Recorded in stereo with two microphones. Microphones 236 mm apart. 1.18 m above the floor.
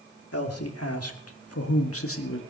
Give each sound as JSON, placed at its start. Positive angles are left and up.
{"t": 0.3, "sound": "a man speaking", "side_deg": 85, "distance_m": 2.5}